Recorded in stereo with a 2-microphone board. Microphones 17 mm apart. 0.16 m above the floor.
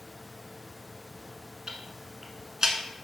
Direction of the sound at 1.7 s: 40° right (ahead or behind).